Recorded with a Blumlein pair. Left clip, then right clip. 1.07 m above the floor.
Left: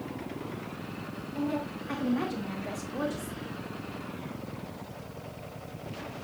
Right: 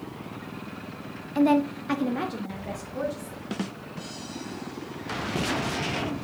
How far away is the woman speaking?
About 1.2 m.